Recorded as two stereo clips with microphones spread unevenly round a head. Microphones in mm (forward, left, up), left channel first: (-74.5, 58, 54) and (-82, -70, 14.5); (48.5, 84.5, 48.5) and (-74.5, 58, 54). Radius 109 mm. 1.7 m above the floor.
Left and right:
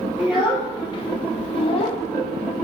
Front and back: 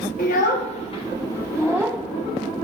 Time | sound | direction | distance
0.2 | a child speaking | straight ahead | 1.0 m